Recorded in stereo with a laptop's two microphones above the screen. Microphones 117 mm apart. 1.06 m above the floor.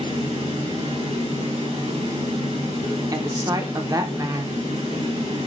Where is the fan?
75° right (ahead or behind), 3.5 m.